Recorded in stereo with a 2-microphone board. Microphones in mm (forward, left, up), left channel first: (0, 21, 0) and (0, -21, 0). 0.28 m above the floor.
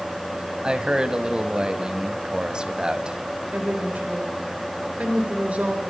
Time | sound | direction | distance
0.6 | a man speaking | 25° right (ahead or behind) | 1.6 m
3.5 | a woman speaking | 35° right (ahead or behind) | 4 m